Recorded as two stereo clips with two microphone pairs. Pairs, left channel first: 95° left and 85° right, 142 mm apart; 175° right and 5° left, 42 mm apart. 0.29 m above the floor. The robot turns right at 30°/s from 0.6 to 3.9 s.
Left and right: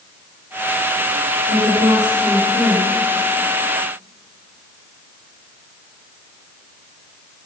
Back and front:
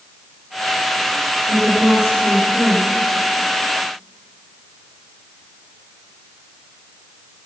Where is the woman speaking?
145° left, 7.5 m; by 2.9 s 175° right, 7.5 m.